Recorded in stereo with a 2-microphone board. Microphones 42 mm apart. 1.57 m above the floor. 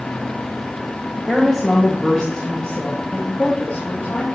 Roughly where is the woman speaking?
Centre.